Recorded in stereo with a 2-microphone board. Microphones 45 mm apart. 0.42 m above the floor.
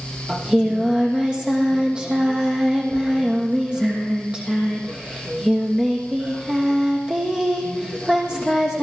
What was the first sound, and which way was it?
Singing, 20° right (ahead or behind).